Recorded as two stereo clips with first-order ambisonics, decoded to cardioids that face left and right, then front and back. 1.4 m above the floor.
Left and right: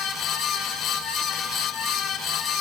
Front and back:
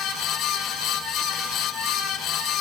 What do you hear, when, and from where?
Only background noise.